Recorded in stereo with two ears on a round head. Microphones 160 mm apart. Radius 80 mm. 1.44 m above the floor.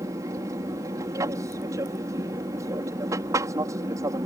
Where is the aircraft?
20° right (ahead or behind).